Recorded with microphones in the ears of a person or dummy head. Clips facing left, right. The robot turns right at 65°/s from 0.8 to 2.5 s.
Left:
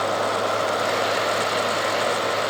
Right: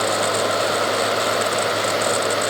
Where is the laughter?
No laughter in this recording.